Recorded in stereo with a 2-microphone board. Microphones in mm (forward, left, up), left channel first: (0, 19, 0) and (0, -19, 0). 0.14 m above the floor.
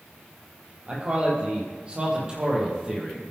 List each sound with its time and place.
0.9 s a man speaking: 30° right (ahead or behind), 5.5 m; by 3.2 s 15° right (ahead or behind), 5.5 m